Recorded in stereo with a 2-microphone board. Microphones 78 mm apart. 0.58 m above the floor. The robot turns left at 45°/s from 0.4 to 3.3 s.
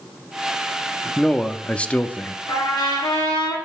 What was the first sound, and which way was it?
A man speaking, 5° left (ahead or behind).